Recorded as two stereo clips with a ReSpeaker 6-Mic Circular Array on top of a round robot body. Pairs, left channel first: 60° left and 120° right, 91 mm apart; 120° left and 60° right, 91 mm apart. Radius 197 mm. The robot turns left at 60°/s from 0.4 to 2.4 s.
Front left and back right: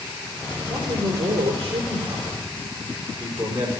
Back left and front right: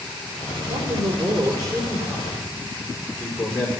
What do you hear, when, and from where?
0.7 s a man speaking: 50° right, 4.5 m; by 3.7 s 155° right, 4.5 m